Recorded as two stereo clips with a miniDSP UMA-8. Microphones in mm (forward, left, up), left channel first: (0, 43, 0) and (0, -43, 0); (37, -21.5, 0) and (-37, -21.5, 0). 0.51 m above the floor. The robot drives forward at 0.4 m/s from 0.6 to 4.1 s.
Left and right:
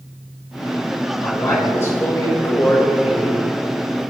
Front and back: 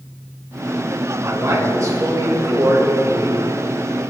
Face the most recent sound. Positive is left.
turn(degrees=155)